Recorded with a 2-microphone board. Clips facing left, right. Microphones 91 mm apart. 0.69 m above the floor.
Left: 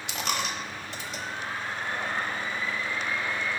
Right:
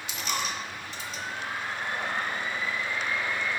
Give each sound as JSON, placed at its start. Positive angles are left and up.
{"t": 0.1, "sound": "a dropped coin", "side_deg": 70, "distance_m": 1.1}